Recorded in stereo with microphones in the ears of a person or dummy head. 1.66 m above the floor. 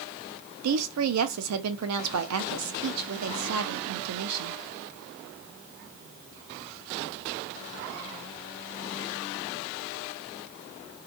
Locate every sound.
0.6 s a woman speaking: 85° right, 0.6 m